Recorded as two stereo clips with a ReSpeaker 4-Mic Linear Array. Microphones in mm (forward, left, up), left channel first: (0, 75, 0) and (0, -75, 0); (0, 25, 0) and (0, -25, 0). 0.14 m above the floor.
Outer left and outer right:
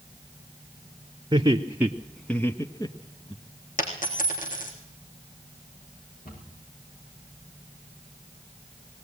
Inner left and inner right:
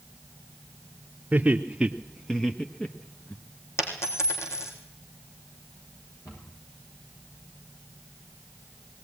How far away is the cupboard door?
About 9 m.